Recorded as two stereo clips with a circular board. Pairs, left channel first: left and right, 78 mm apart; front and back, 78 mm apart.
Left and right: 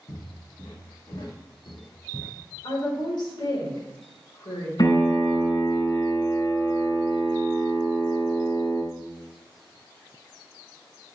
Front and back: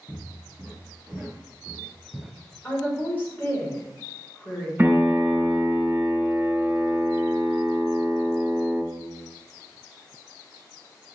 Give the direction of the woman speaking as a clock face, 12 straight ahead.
10 o'clock.